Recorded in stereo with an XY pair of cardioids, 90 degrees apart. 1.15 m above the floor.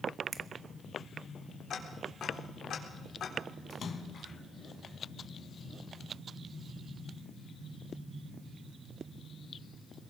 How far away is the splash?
About 3 m.